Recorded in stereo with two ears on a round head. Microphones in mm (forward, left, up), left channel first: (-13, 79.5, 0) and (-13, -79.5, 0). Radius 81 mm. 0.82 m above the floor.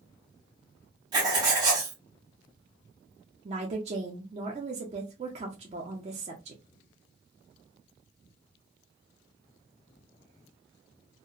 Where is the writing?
25° right (ahead or behind), 1.1 m.